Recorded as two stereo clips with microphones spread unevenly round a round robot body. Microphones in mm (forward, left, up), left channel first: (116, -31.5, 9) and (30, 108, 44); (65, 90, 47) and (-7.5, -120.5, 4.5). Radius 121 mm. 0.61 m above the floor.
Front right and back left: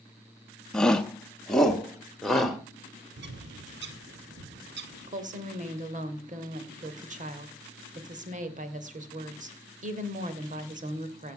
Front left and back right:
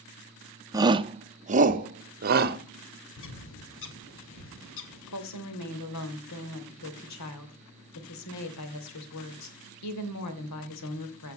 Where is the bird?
110° left, 1.7 m.